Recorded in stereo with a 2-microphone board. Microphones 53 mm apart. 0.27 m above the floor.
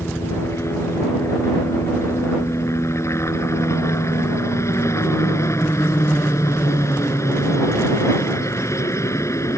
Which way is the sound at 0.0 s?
60° left (ahead or behind).